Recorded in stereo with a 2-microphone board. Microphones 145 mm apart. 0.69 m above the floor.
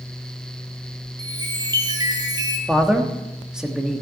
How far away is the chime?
About 2 m.